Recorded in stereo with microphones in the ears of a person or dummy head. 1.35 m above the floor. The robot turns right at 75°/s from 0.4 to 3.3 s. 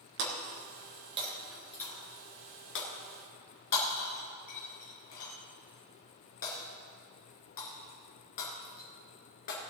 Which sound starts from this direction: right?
Breaking glass, at 0.2 s.